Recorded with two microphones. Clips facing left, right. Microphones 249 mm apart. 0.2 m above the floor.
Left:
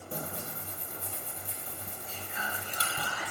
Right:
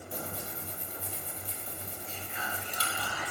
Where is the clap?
No clap in this recording.